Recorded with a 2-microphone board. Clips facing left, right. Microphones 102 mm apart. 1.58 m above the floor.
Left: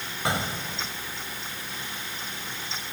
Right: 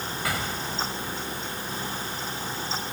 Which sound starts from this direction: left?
An explosion, at 0.2 s.